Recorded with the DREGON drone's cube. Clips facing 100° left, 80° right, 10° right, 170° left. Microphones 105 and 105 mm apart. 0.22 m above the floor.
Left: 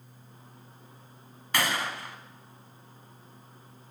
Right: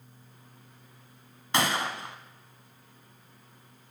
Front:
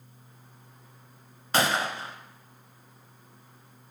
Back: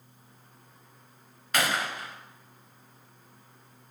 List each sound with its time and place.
1.5 s a gunshot: 40° right, 0.7 m